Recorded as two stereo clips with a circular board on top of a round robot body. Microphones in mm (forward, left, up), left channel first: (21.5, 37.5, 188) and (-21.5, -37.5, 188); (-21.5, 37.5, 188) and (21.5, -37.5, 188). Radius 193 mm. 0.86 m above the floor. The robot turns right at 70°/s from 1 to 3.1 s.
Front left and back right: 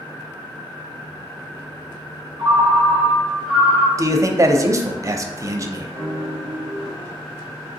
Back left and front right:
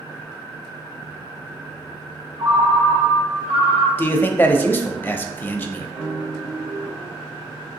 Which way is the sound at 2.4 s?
90° right.